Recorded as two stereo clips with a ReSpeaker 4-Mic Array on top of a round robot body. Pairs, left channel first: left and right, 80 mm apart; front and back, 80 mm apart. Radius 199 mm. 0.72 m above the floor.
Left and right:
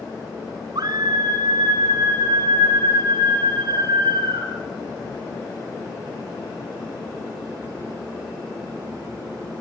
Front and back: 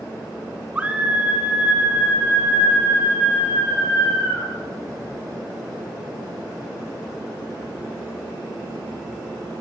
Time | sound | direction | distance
0.8 | a scream | 110° right | 2.5 m